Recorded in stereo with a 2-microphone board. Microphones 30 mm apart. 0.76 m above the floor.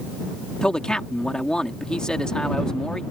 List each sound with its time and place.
0.6 s a man speaking: 25° left (ahead or behind)